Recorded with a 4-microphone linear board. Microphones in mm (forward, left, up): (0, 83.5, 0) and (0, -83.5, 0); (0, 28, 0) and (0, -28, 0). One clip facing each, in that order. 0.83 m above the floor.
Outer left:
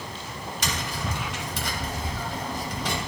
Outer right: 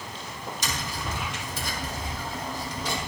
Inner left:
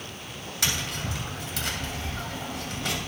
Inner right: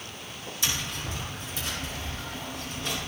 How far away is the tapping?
About 2.5 m.